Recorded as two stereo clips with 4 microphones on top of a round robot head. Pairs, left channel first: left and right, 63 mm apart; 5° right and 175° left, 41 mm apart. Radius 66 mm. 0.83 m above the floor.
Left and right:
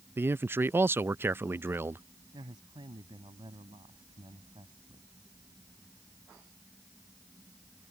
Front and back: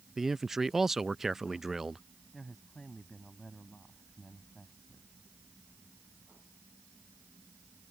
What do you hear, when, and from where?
0.2 s a man speaking: 110° right
2.3 s a woman speaking: 90° right